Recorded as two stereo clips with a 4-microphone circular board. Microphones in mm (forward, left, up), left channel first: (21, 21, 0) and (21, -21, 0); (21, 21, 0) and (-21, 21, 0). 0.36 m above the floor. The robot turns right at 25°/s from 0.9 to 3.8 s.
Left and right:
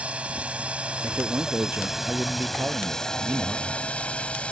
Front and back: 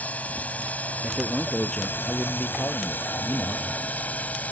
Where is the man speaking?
85° right; by 3.7 s 20° right.